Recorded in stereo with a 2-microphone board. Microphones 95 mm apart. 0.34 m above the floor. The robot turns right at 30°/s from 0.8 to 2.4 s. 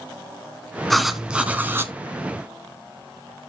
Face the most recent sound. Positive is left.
turn(degrees=-140)